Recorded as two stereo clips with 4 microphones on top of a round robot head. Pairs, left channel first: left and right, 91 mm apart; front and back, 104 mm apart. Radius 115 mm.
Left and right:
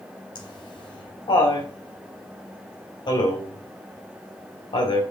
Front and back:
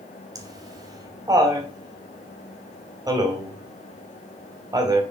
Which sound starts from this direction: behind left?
Laughter, at 0.3 s.